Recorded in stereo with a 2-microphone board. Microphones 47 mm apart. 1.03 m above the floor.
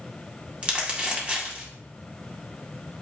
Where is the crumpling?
25° right (ahead or behind), 2.0 m.